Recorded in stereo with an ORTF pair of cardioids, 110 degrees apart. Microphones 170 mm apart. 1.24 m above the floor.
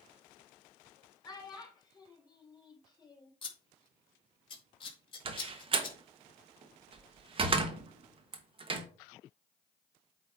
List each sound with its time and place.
1.2 s a child speaking: 25° left, 3.5 m
3.4 s scissors: 30° left, 2.5 m
5.2 s a door slam: 35° right, 1.1 m